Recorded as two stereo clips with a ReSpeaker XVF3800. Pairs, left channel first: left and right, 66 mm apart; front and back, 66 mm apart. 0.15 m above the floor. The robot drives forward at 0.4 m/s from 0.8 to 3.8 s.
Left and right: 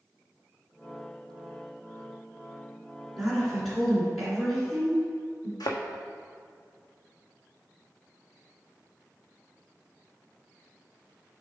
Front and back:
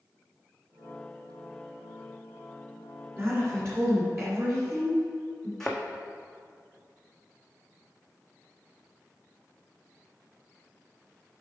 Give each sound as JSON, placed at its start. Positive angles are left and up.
{"t": 3.2, "sound": "a woman speaking", "azimuth_deg": 170, "distance_m": 1.9}
{"t": 5.6, "sound": "a thud", "azimuth_deg": 85, "distance_m": 0.9}